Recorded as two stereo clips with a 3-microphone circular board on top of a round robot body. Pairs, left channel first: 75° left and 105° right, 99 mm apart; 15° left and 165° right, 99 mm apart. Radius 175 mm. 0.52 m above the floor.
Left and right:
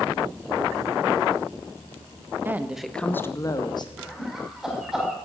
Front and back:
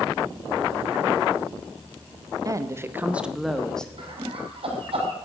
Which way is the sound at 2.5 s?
155° right.